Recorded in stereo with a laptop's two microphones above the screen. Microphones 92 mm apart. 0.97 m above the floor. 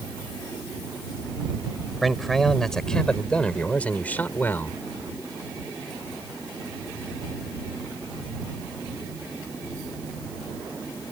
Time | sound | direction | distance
2.0 | a man speaking | centre (ahead or behind) | ?